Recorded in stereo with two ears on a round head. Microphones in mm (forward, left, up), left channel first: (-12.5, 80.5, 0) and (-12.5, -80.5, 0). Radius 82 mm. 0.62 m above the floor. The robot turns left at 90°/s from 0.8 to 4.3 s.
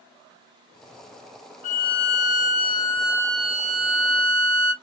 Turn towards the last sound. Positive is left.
turn(degrees=-110)